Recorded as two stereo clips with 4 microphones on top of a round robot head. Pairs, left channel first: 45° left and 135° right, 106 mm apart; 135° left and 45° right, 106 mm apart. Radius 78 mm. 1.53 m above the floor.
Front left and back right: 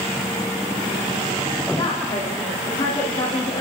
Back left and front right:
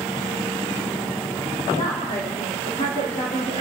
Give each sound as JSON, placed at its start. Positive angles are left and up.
{"t": 1.8, "sound": "a woman speaking", "azimuth_deg": 100, "distance_m": 4.5}